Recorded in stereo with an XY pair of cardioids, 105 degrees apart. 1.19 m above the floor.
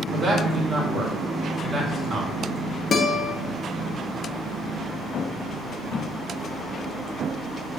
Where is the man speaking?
40° right, 4 m.